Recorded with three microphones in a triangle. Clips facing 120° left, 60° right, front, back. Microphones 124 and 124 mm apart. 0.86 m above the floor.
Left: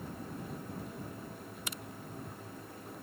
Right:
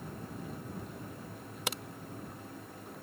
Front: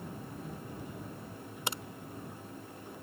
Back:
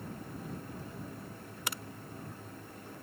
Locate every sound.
1.7 s a crack: 65° right